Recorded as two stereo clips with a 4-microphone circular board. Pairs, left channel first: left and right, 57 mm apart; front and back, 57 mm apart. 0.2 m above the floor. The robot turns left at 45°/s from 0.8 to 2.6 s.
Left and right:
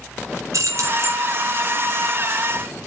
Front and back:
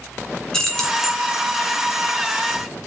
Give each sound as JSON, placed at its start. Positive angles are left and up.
{"t": 0.5, "sound": "keys jangling", "azimuth_deg": -75, "distance_m": 1.8}